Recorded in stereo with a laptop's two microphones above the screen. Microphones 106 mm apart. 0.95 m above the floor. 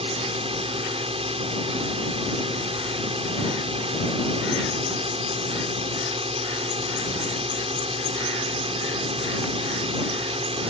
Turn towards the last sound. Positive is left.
turn(degrees=-65)  # may be behind; listen again after turning